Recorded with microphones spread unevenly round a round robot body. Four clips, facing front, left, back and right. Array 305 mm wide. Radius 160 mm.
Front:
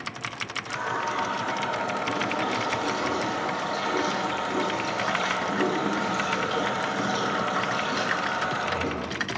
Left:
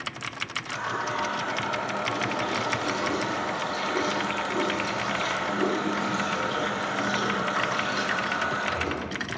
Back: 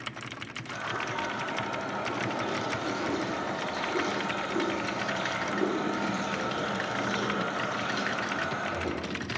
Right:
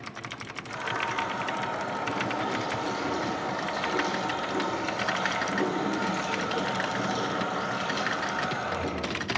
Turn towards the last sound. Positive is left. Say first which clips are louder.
# left 1 dB, front 5 dB
turn(degrees=-20)